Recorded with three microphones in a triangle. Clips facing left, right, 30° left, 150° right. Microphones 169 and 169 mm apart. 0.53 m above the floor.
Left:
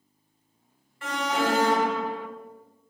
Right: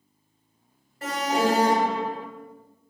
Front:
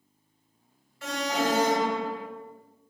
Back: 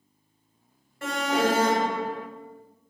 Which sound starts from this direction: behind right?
An alarm, at 1.0 s.